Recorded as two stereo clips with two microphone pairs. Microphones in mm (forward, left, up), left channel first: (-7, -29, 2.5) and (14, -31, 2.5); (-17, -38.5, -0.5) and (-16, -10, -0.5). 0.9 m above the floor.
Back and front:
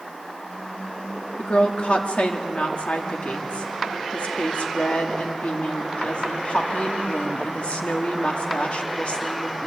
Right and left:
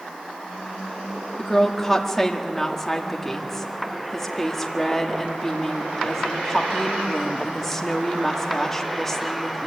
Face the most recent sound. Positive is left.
turn(degrees=-175)